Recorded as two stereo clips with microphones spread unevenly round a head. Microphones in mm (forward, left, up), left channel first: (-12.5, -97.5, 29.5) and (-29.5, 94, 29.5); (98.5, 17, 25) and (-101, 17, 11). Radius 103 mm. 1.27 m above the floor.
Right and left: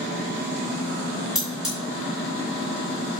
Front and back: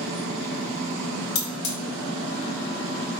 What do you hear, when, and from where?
1.4 s cutlery clinking: 5° left, 1.7 m